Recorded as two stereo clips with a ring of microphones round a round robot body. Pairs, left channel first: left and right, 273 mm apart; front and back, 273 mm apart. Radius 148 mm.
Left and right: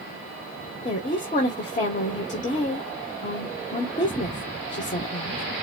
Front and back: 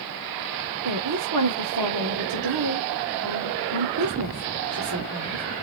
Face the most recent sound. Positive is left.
turn(degrees=150)